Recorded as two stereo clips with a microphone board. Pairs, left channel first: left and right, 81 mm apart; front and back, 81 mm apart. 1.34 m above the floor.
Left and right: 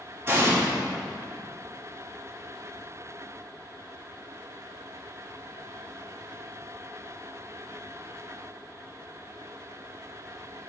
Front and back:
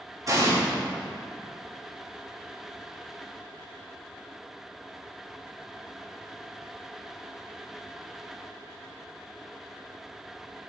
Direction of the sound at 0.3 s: 140° right.